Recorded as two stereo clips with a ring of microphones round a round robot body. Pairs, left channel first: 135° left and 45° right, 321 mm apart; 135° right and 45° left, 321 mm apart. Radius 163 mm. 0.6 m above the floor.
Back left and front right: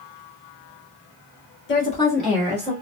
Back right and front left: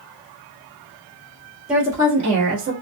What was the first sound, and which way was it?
A woman speaking, 130° left.